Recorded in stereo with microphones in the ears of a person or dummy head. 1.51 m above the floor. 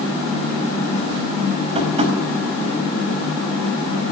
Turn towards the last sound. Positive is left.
turn(degrees=-35)  # may be behind; listen again after turning